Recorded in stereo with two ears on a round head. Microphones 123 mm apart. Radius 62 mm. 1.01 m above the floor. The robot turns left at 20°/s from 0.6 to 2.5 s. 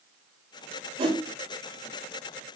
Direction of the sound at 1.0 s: 40° right (ahead or behind).